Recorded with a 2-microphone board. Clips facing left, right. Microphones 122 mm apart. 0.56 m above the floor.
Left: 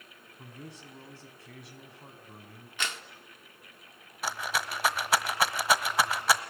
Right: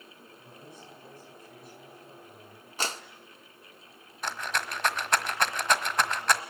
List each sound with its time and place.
0.4 s a man speaking: 80° left, 4.5 m
2.8 s a clap: 35° right (ahead or behind), 1.0 m
4.2 s a rattle: 5° left (ahead or behind), 1.2 m